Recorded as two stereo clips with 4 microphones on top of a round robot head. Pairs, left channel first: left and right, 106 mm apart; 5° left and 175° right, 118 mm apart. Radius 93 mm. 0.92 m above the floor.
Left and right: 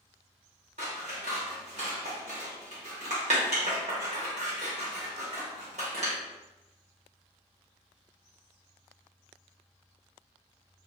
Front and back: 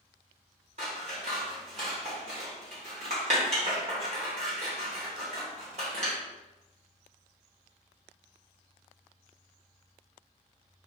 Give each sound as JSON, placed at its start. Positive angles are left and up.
{"t": 0.8, "sound": "scissors", "azimuth_deg": -125, "distance_m": 1.2}